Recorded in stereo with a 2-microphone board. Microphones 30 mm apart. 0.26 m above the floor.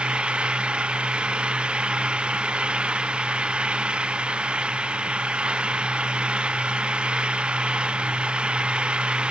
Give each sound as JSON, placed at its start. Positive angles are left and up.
{"t": 0.0, "sound": "an engine running", "side_deg": -35}